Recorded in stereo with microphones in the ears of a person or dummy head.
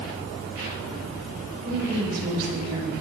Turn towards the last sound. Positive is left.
turn(degrees=-55)  # may be behind; listen again after turning